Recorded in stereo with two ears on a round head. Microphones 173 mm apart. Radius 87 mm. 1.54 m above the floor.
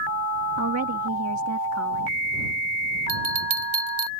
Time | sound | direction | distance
0.6 | a woman speaking | 85° right | ?
3.1 | a bell | 40° right (ahead or behind) | ?